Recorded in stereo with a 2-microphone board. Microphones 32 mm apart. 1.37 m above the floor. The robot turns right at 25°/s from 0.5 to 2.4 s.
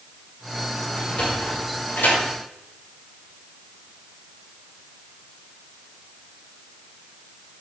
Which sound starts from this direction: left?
A sliding door, at 0.9 s.